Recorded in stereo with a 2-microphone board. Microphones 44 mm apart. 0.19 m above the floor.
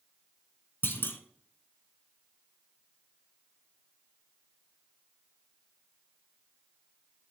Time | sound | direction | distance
0.8 | a clunk | 55° left (ahead or behind) | 0.7 m